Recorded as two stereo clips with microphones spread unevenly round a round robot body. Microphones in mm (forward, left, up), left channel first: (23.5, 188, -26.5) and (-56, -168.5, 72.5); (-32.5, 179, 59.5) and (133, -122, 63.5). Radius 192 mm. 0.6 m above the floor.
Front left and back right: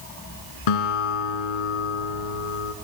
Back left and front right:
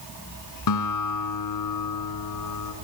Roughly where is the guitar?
Left.